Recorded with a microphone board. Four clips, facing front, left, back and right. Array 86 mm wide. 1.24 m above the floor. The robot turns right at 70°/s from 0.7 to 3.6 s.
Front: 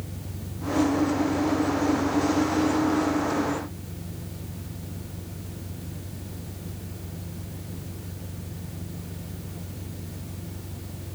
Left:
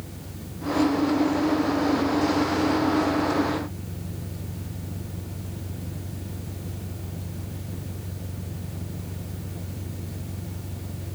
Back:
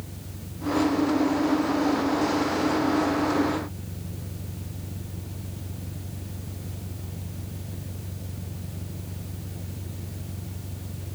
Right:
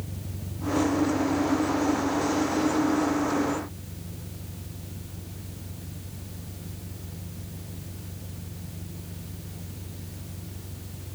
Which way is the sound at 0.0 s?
70° right.